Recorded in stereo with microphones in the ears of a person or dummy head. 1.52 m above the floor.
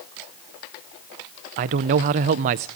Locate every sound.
1.6 s a man speaking: 35° right (ahead or behind), 0.5 m